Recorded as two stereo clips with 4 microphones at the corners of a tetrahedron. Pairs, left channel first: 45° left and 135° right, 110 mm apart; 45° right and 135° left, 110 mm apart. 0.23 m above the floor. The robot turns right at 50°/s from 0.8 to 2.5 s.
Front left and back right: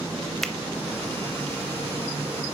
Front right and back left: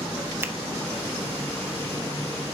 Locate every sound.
0.4 s a finger snap: 125° left, 0.8 m